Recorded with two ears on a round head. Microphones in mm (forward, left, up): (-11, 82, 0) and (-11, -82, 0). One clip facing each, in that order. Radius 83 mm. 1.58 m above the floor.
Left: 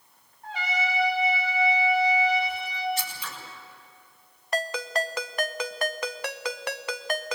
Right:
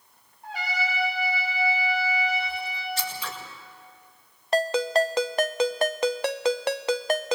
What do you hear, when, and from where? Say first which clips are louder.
0.4 s a trumpet: left 1 dB; 5° right (ahead or behind), 9.5 m
3.0 s scissors: right 2 dB; 55° right (ahead or behind), 6 m
4.5 s a ringtone: right 7 dB; 25° right (ahead or behind), 0.6 m